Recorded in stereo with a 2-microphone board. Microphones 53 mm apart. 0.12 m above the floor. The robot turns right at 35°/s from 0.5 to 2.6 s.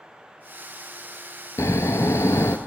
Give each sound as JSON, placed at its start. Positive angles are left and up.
{"t": 1.6, "sound": "snoring", "azimuth_deg": 80, "distance_m": 0.5}